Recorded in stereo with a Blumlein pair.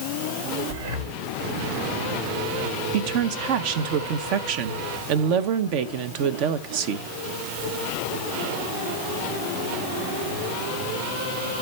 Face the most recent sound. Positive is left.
turn(degrees=-45)